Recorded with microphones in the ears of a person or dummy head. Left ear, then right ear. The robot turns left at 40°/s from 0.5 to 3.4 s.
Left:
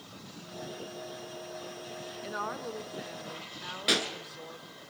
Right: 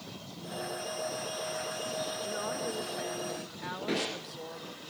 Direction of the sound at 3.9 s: 65° left (ahead or behind).